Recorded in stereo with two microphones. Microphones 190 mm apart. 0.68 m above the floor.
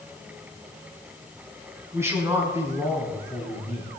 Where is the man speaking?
15° right (ahead or behind), 6 m.